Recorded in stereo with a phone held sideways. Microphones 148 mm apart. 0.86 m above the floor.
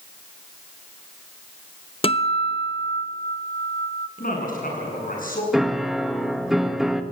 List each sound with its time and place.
2.0 s a guitar: 40° left (ahead or behind), 0.8 m
4.2 s a man speaking: 70° left (ahead or behind), 9 m
5.5 s a piano: centre (ahead or behind), 1.2 m